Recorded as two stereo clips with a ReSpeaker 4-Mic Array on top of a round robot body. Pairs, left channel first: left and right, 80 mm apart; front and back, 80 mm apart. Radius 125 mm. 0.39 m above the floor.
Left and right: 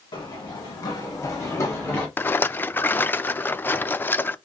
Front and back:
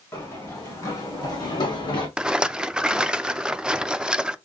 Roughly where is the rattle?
Behind left.